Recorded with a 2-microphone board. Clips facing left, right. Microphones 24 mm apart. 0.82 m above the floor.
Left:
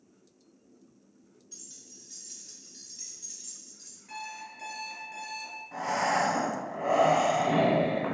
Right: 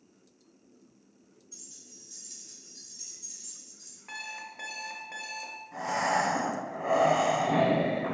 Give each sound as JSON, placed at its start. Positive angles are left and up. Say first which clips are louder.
{"t": 1.5, "sound": "keys jangling", "louder": "left 1 dB", "side_deg": 75, "distance_m": 1.8}
{"t": 4.1, "sound": "an alarm clock", "louder": "right 1 dB", "side_deg": -60, "distance_m": 0.8}
{"t": 5.7, "sound": "breathing", "louder": "even", "side_deg": 35, "distance_m": 1.5}